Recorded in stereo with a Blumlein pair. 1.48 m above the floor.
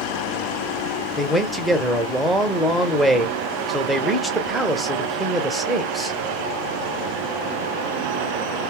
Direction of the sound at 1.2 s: 5° right.